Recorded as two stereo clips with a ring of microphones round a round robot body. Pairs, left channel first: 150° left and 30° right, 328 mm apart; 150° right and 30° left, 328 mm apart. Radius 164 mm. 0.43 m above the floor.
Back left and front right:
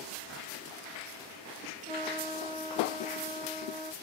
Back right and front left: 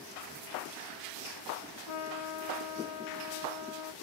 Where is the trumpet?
105° right, 0.7 m.